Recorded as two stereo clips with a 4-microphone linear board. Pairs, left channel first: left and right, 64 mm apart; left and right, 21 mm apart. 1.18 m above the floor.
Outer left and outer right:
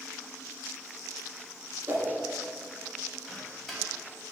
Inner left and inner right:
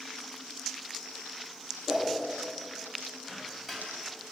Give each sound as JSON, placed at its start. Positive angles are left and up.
{"t": 1.9, "sound": "a whoosh", "side_deg": -50, "distance_m": 1.0}
{"t": 3.3, "sound": "a microwave", "side_deg": 0, "distance_m": 2.5}